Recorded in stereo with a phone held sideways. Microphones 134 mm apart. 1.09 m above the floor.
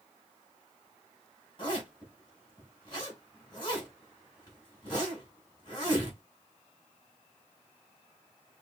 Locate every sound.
1.6 s a zipper: 35° left (ahead or behind), 3.5 m